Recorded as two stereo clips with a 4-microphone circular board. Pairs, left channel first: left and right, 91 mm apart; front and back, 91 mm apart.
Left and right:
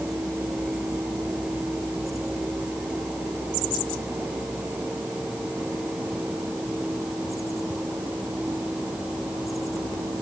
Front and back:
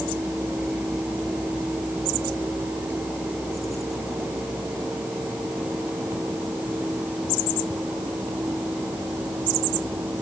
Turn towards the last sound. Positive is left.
No sound to turn to.